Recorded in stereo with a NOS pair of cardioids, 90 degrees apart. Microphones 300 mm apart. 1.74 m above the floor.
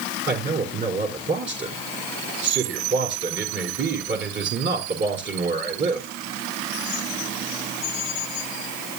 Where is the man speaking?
35° right, 4.5 m.